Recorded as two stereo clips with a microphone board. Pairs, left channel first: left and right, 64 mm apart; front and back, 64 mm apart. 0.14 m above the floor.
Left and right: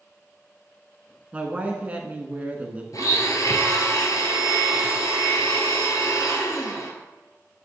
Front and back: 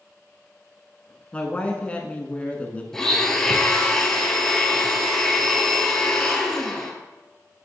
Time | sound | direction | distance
1.3 | a woman speaking | 50° right | 1.1 m
2.9 | a blender | 80° left | 1.3 m